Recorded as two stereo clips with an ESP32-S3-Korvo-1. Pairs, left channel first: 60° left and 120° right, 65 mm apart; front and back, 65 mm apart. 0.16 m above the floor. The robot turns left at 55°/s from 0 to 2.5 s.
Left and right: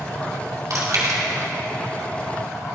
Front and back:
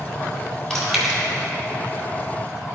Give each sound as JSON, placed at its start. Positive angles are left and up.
{"t": 0.7, "sound": "chewing", "azimuth_deg": -80, "distance_m": 2.0}